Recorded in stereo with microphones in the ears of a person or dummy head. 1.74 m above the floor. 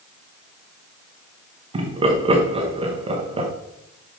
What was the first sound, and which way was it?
Laughter, 25° right (ahead or behind).